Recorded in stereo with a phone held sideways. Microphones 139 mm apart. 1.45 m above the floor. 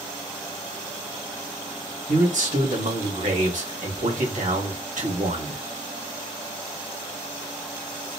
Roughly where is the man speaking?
Right.